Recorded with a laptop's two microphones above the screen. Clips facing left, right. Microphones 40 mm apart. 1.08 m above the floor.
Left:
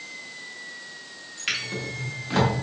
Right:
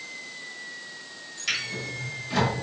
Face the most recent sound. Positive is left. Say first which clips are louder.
# left 1 dB
turn(degrees=40)  # may be behind; listen again after turning